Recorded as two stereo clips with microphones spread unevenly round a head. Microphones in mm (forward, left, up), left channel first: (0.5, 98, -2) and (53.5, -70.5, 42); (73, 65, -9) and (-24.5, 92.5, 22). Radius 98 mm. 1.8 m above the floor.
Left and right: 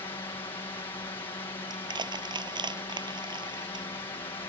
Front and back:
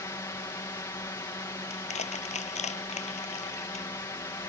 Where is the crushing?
10° right.